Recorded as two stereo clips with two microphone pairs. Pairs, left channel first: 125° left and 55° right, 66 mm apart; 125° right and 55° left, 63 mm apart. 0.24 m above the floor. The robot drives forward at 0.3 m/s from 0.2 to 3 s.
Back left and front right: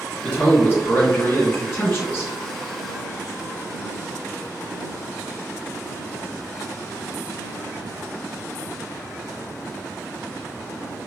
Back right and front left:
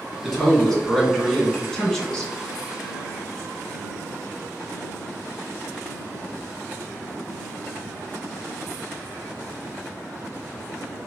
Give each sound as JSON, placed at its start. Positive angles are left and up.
{"t": 0.2, "sound": "a man speaking", "azimuth_deg": 160, "distance_m": 1.8}